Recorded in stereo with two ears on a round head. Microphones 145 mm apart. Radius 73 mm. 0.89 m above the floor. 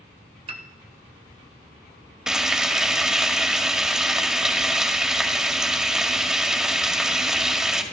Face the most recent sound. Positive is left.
turn(degrees=-5)  # may be behind; listen again after turning